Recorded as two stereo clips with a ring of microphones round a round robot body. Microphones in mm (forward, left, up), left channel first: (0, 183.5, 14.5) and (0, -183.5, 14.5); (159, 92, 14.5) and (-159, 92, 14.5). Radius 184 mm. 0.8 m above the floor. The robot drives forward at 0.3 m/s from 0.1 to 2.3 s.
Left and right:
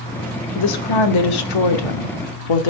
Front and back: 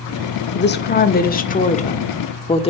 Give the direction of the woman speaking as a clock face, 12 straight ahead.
10 o'clock.